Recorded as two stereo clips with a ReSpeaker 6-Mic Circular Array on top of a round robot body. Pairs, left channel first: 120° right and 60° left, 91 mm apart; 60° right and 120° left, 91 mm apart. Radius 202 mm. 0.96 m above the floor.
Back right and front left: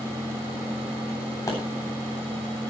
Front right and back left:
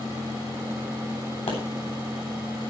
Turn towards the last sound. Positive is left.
turn(degrees=-65)